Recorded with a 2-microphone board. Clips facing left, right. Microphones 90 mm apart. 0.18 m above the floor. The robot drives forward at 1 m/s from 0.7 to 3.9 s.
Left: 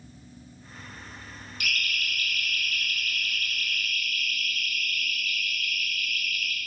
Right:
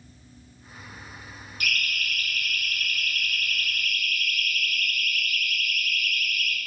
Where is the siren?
40° right (ahead or behind), 8.5 m; by 6.6 s 70° right (ahead or behind), 5 m.